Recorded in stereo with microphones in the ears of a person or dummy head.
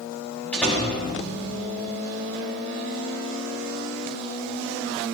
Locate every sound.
0.5 s a door slam: 10° left (ahead or behind), 2.5 m